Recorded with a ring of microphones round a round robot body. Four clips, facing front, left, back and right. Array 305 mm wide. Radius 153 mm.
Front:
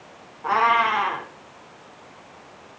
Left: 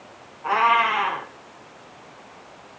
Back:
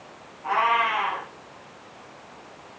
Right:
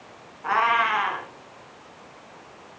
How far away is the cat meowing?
About 1.8 m.